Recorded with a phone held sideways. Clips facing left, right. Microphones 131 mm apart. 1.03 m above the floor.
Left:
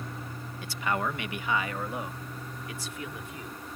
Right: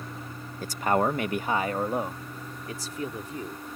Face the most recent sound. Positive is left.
turn(degrees=-35)  # may be behind; listen again after turning